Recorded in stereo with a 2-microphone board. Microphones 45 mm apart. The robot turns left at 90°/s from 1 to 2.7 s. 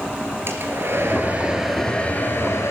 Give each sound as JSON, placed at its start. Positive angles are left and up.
{"t": 0.5, "sound": "a hair dryer", "azimuth_deg": -110, "distance_m": 3.0}